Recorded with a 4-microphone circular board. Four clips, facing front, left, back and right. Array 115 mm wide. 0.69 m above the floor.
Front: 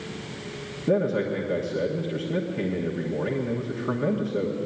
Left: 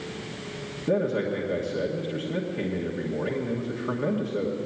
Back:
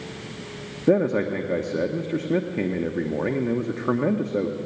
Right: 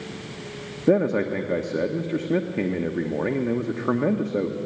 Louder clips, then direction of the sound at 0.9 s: Right 5 dB, back 3 dB; 130° right.